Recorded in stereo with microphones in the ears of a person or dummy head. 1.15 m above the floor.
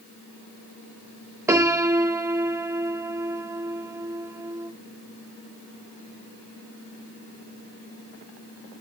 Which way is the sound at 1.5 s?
15° right (ahead or behind).